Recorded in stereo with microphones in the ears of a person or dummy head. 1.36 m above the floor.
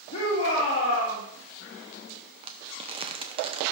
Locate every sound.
0.1 s a shout: 45° left (ahead or behind), 2 m
2.4 s crumpling: 30° right (ahead or behind), 0.7 m